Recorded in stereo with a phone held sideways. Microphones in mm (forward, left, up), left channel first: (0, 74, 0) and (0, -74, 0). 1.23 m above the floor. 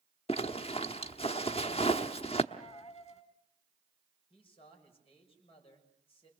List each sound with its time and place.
0.3 s a zipper: 40° left (ahead or behind), 1.1 m
2.5 s a dropped coin: 45° left (ahead or behind), 2.0 m
4.3 s a man speaking: 40° left (ahead or behind), 6.5 m